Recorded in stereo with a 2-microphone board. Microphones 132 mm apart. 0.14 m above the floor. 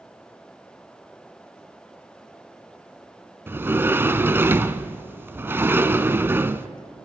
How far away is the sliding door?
About 0.6 m.